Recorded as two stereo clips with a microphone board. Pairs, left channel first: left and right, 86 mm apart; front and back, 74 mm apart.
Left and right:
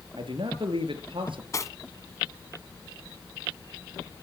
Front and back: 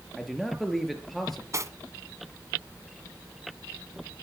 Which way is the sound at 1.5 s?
135° left.